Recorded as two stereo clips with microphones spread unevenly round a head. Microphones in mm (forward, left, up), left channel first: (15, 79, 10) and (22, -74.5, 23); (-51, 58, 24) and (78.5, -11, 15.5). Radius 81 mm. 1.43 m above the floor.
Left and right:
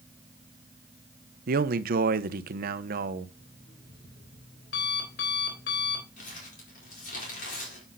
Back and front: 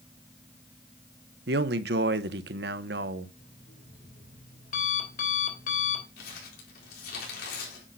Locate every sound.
1.5 s a man speaking: 60° right, 0.8 m
3.4 s an alarm clock: 120° left, 3 m
6.2 s crumpling: 135° left, 4.5 m